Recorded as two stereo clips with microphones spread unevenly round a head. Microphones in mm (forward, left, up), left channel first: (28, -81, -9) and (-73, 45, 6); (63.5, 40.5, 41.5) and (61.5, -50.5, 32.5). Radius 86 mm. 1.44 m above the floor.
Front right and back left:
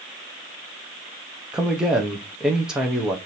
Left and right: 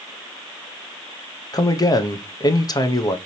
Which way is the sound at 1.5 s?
40° left.